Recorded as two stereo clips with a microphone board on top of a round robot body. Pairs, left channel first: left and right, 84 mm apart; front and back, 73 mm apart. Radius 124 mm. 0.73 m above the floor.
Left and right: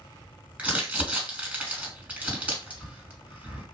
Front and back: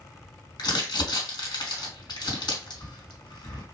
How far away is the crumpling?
About 3 m.